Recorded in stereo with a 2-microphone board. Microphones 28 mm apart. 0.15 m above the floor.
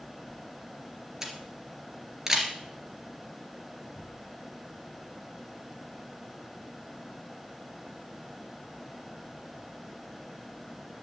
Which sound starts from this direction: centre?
A camera shutter, at 1.2 s.